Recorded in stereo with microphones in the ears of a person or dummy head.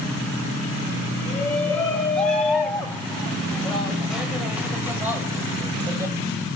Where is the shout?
10° left (ahead or behind), 7 m; by 6.2 s 15° right (ahead or behind), 6 m.